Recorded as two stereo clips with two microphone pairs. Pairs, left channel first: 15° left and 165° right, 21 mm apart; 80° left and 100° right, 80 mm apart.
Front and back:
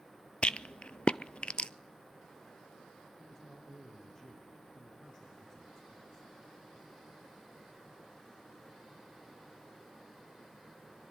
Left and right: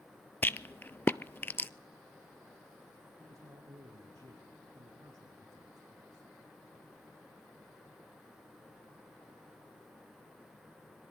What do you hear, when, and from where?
0.4 s a rattle: 25° left, 0.6 m
3.2 s a man speaking: 50° right, 5.5 m